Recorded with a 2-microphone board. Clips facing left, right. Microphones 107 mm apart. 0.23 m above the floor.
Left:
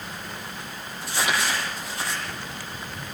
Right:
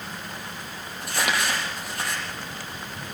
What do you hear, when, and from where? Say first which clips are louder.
1.0 s crumpling: even; 60° right (ahead or behind), 7.5 m